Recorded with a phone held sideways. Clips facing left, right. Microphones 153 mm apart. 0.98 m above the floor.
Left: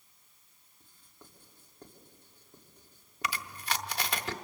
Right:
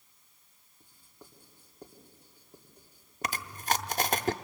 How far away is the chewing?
About 0.7 m.